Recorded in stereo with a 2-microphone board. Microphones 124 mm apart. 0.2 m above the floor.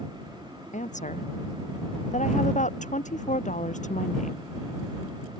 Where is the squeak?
I don't hear a squeak.